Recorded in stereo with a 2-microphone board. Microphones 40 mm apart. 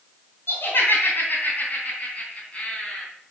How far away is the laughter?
About 2.5 m.